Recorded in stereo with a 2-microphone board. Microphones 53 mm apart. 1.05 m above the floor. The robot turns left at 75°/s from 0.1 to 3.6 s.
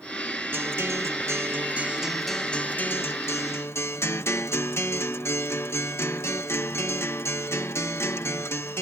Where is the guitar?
50° right; by 8.8 s 75° left.